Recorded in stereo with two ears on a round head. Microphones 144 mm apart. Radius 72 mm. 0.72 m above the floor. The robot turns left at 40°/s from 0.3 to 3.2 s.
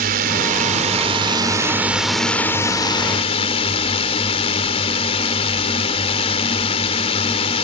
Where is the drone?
105° right; by 7.7 s 135° left.